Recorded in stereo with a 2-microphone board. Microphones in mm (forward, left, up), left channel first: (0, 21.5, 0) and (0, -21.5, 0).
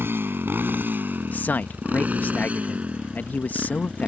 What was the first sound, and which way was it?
A motorcycle, 60° right (ahead or behind).